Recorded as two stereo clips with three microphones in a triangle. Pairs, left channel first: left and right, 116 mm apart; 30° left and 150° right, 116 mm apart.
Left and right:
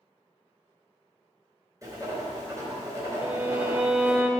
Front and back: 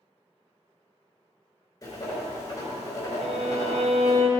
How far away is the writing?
About 3 m.